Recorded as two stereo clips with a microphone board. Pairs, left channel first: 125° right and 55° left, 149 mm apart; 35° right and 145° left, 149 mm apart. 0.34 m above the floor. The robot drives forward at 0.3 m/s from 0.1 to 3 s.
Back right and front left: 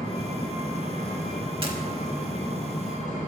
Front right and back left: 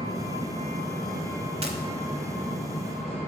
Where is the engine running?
90° right, 1.6 m; by 3.3 s 125° right, 1.8 m.